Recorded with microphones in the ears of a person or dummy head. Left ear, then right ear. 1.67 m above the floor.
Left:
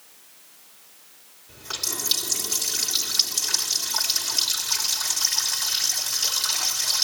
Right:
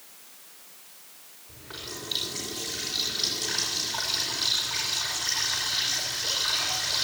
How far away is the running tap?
About 3.5 m.